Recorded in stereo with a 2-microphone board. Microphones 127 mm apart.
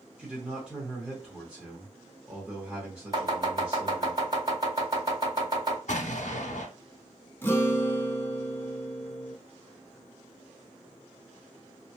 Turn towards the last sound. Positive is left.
turn(degrees=15)  # may be behind; listen again after turning